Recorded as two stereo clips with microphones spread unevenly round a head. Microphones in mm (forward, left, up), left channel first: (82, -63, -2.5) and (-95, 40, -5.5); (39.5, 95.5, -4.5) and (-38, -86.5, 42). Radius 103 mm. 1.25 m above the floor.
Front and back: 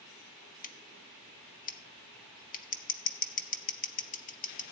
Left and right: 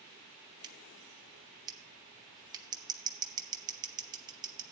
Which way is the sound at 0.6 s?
60° right.